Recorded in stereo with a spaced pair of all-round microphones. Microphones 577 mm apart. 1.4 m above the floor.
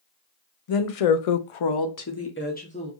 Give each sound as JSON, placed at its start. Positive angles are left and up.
{"t": 0.7, "sound": "a woman speaking", "side_deg": 65, "distance_m": 0.7}